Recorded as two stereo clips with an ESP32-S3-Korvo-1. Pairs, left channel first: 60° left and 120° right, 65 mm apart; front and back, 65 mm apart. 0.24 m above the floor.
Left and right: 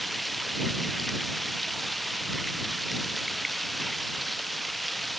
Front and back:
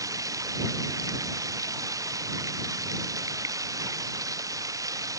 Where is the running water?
150° left.